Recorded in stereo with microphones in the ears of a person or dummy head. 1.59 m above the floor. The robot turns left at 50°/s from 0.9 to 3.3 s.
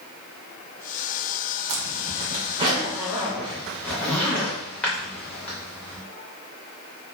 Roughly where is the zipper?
Right.